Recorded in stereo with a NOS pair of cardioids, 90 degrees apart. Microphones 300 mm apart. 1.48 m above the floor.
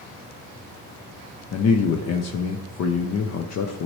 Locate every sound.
1.5 s a man speaking: 55° left, 0.8 m